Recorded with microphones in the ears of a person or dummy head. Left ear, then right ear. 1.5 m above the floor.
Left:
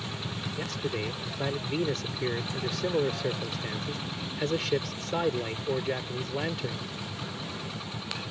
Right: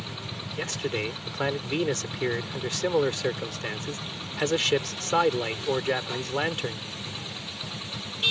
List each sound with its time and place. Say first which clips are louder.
0.6 s a man speaking: right 4 dB; 40° right (ahead or behind)